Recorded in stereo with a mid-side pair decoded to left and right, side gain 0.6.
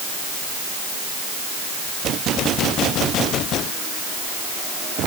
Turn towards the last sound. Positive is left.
No sound to turn to.